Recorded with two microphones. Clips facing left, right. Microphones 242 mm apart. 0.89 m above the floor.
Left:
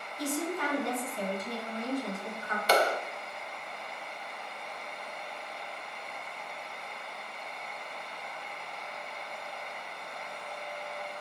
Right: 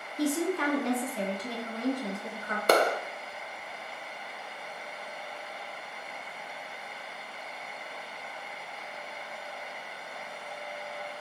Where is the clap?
55° right (ahead or behind), 0.5 m.